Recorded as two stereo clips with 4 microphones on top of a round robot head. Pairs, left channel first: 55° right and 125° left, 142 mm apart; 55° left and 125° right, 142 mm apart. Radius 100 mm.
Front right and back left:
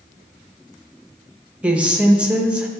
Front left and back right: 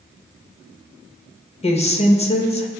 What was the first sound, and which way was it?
A woman speaking, 45° left.